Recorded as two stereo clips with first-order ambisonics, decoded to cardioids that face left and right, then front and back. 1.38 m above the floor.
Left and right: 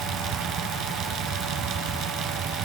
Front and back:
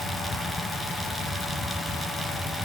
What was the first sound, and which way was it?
Only background noise.